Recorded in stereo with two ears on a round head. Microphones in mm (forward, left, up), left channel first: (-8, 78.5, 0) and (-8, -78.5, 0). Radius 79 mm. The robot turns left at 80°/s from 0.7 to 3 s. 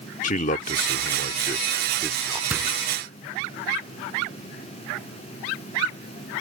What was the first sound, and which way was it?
A man speaking, 115° left.